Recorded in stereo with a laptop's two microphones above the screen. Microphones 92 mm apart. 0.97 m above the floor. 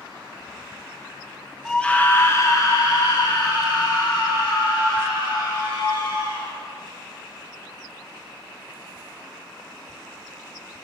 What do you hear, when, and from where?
1.6 s a scream: 5° left (ahead or behind), 0.8 m; by 6.5 s 65° left (ahead or behind), 3.5 m